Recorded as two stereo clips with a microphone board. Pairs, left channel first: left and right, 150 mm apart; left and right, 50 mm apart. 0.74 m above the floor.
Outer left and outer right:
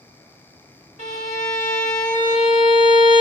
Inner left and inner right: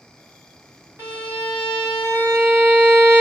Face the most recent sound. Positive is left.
turn(degrees=-55)  # may be behind; listen again after turning